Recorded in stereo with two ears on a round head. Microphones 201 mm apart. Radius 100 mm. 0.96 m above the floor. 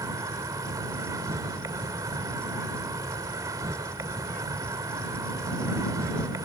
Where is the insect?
15° right (ahead or behind).